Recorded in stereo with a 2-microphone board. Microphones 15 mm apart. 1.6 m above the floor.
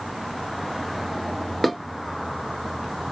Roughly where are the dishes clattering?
Centre.